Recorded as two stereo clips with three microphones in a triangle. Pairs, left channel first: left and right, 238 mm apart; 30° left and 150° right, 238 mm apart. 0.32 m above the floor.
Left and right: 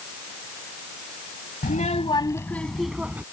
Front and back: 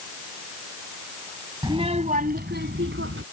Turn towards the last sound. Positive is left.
turn(degrees=-170)